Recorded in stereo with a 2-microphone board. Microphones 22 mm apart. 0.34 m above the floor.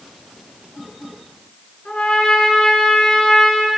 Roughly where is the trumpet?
Left.